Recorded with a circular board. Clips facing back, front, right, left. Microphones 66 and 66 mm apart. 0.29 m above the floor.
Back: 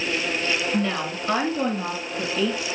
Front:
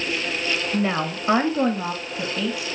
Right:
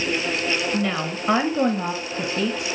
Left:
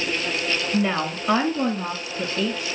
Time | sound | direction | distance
0.7 | a woman speaking | 35° left | 1.1 m